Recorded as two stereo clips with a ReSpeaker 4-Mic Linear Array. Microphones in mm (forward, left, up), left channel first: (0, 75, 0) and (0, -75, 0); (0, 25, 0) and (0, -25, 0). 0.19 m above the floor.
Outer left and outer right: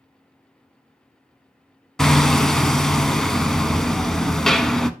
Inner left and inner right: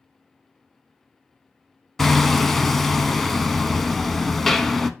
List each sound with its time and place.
2.0 s hammering: 5° left (ahead or behind), 0.6 m